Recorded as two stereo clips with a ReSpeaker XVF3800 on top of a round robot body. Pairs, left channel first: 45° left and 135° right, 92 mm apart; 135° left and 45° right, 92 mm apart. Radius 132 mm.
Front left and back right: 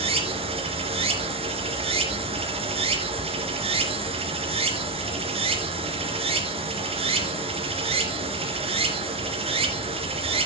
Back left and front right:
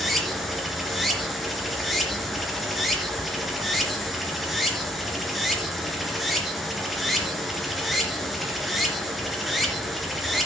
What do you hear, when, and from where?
0.0 s running water: 135° right, 2.5 m